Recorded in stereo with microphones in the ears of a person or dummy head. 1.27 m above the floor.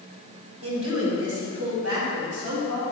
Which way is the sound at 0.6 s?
85° right.